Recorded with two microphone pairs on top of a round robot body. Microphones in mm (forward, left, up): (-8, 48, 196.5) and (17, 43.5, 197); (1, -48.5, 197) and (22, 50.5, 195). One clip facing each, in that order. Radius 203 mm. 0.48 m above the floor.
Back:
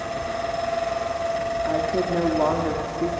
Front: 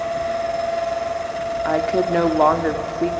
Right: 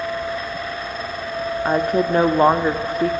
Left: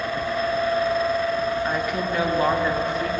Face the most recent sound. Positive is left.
turn(degrees=-55)